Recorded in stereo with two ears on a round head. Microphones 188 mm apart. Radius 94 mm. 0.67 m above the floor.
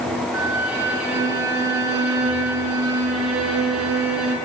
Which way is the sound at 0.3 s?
75° right (ahead or behind).